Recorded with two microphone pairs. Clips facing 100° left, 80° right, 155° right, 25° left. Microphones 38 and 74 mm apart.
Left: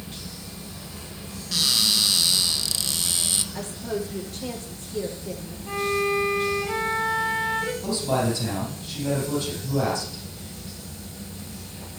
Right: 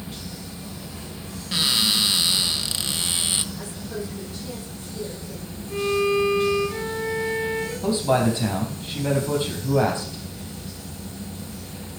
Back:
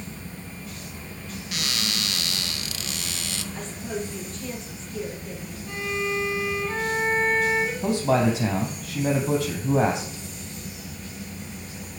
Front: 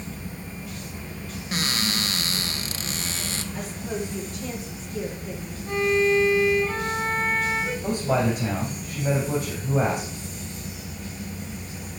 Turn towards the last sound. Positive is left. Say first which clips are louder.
# right 7 dB, back 2 dB
turn(degrees=-140)